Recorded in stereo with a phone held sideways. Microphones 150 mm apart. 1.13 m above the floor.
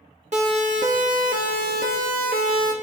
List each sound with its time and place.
0.3 s a siren: 50° right (ahead or behind), 2.5 m; by 2.7 s 75° right (ahead or behind), 2.5 m